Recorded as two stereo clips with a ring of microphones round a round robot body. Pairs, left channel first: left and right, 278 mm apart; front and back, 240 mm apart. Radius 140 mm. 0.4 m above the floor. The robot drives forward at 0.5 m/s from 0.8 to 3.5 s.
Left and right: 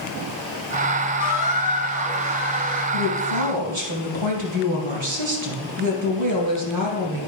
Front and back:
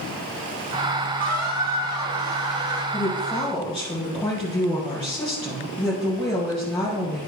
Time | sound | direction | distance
1.2 | a squeak | 155° left | 1.7 m
2.9 | a woman speaking | 80° right | 2.5 m